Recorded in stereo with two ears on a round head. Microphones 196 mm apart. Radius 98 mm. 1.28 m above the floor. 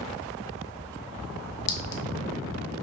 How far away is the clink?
About 0.5 m.